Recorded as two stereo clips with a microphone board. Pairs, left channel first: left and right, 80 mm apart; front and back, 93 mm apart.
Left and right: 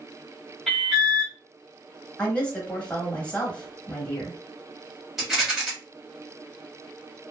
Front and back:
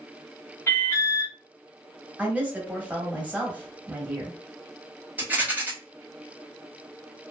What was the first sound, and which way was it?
An alarm, straight ahead.